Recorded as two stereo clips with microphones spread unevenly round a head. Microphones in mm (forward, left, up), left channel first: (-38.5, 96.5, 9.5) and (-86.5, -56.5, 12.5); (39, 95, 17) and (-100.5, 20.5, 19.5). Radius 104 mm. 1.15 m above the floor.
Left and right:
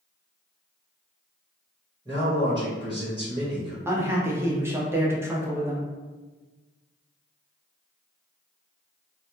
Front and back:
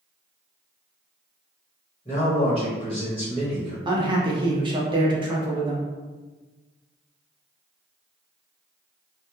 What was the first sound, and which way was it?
A man speaking, 35° right.